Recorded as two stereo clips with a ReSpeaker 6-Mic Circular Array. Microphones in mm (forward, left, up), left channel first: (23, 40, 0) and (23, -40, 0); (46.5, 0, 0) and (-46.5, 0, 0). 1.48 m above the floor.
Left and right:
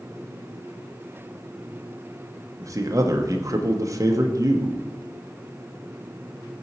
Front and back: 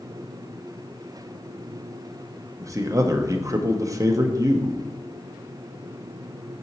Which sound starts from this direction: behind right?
A man speaking, at 2.6 s.